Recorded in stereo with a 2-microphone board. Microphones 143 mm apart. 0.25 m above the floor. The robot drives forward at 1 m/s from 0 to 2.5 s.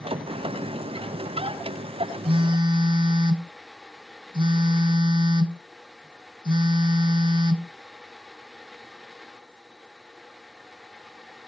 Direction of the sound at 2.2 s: 40° right (ahead or behind).